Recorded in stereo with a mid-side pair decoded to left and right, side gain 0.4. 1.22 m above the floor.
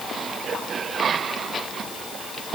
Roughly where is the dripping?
No dripping in this recording.